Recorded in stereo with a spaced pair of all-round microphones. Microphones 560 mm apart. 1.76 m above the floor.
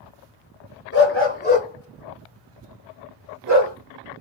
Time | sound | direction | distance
0.9 | a dog barking | 25° left (ahead or behind) | 2.0 m